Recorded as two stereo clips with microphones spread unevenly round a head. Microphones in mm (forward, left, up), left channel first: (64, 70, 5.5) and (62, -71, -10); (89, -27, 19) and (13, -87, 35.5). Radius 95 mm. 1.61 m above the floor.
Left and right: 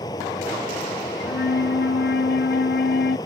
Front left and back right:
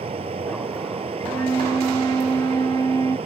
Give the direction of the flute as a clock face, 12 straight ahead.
8 o'clock.